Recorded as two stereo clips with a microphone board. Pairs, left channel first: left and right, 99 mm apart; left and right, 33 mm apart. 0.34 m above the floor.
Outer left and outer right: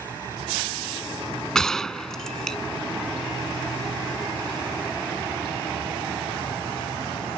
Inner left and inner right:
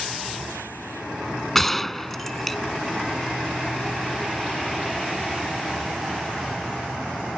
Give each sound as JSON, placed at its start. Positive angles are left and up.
{"t": 1.6, "sound": "a gunshot", "side_deg": 5}